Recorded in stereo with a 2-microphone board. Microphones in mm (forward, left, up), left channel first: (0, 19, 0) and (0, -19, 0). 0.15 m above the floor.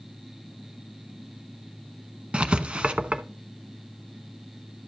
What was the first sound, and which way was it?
Writing, 30° right (ahead or behind).